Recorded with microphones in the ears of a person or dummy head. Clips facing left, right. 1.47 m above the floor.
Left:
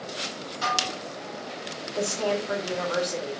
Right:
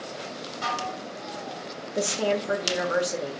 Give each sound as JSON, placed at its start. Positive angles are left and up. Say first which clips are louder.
{"t": 0.6, "sound": "dishes clattering", "louder": "left 1 dB", "side_deg": 65, "distance_m": 1.1}
{"t": 1.9, "sound": "a woman speaking", "louder": "right 1 dB", "side_deg": -20, "distance_m": 0.6}